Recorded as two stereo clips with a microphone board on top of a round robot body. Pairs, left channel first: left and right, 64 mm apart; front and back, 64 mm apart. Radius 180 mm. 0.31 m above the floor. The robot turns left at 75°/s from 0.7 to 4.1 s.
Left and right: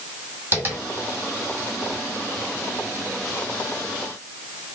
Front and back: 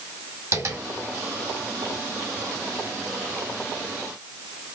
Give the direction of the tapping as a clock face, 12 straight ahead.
5 o'clock.